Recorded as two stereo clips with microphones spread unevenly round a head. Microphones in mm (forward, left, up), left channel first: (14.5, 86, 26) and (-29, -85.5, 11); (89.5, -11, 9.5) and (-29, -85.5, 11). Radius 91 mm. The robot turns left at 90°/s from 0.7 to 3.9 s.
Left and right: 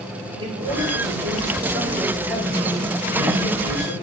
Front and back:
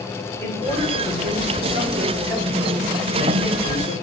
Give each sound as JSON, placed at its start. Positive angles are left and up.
{"t": 0.4, "sound": "a man speaking", "azimuth_deg": -40, "distance_m": 3.0}